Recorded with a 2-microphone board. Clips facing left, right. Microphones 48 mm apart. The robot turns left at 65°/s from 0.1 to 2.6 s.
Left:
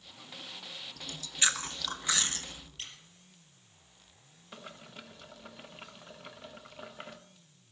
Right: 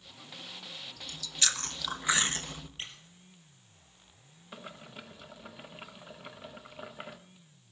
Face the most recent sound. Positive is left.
turn(degrees=-5)  # may be behind; listen again after turning